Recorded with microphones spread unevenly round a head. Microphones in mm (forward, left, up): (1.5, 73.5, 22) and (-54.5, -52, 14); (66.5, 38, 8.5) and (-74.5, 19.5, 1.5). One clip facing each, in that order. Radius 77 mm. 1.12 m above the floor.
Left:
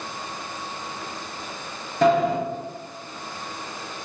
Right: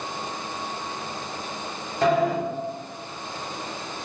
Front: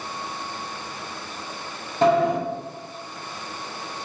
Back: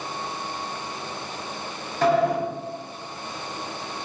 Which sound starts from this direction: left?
A sliding door, at 2.0 s.